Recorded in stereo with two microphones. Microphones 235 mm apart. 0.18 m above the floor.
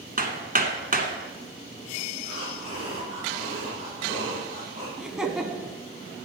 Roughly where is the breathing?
Left.